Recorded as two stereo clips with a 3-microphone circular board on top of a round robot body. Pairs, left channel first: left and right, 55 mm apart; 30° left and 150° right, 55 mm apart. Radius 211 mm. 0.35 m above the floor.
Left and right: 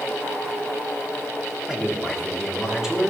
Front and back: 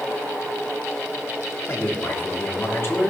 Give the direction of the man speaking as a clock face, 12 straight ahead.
12 o'clock.